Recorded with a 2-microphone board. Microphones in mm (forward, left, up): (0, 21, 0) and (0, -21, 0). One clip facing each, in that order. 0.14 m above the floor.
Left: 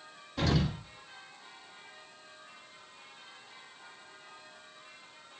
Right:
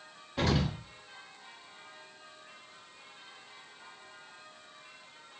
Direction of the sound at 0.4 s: 20° right (ahead or behind).